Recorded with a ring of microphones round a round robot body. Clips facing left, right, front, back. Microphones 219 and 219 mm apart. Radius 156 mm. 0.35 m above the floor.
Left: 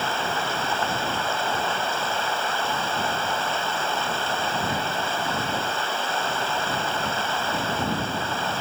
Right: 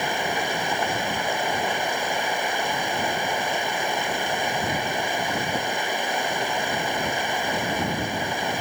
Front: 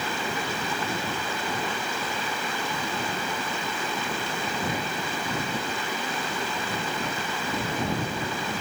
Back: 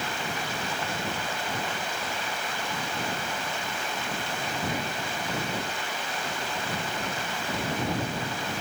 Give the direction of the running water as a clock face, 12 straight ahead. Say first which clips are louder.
Right 2 dB, front 3 dB; 12 o'clock.